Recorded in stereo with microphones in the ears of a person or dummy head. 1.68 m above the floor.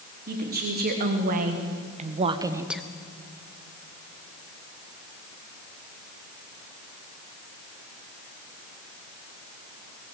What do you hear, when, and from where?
0.3 s a woman speaking: 55° right (ahead or behind), 3.5 m; by 2.8 s 5° left (ahead or behind), 0.8 m